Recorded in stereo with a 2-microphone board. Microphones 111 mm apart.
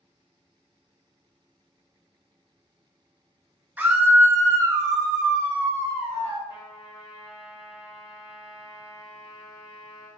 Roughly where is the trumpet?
Right.